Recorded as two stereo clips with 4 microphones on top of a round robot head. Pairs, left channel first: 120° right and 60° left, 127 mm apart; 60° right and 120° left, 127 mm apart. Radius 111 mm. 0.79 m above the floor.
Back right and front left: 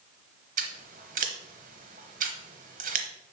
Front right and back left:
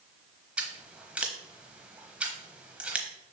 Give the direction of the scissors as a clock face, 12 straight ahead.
11 o'clock.